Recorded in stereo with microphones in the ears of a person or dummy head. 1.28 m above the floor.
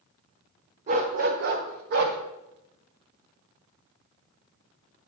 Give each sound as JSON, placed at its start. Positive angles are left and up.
{"t": 0.9, "sound": "a dog barking", "side_deg": -25, "distance_m": 1.2}